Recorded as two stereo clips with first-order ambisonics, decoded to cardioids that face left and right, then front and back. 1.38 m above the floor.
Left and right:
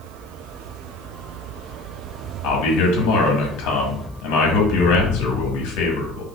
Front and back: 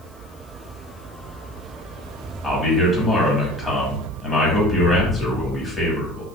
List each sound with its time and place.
2.4 s a man speaking: 80° left, 1.4 m